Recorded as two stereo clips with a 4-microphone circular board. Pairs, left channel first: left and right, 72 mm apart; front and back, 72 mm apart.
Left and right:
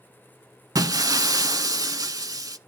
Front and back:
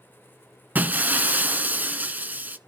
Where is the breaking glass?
115° right, 0.5 m.